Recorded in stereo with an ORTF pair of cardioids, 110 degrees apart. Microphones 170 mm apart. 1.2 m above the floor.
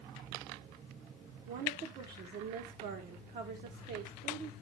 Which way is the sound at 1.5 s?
65° right.